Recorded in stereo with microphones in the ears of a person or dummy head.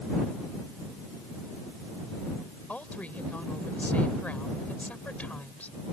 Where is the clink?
I don't hear a clink.